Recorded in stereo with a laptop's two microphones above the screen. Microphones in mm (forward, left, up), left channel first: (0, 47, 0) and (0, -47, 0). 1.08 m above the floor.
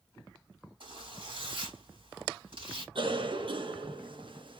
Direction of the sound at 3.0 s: 65° right (ahead or behind).